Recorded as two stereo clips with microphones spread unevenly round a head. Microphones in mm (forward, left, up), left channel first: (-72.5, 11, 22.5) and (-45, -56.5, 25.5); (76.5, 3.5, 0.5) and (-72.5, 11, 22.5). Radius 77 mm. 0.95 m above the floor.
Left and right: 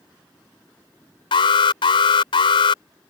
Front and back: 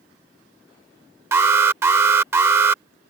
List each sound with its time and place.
1.3 s an alarm: 105° left